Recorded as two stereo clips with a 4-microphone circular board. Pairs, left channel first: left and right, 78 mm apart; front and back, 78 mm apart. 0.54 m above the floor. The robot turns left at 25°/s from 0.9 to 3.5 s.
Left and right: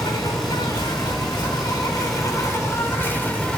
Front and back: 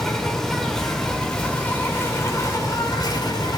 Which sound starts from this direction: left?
An insect, at 0.0 s.